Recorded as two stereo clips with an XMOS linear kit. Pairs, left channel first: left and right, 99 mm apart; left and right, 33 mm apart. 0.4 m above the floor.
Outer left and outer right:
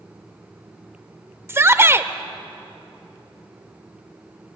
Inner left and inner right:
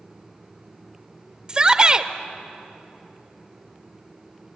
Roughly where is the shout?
Right.